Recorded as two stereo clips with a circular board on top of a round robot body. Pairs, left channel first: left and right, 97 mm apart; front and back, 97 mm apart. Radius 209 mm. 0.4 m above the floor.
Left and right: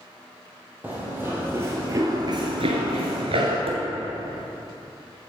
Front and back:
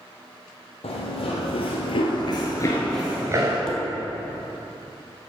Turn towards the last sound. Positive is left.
turn(degrees=-85)